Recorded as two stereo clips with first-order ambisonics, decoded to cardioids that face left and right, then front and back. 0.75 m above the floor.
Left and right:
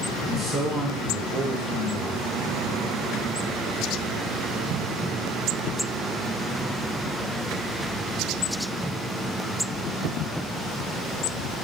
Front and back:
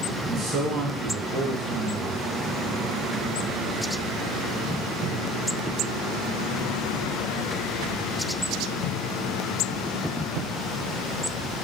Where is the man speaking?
155° right, 2.0 m.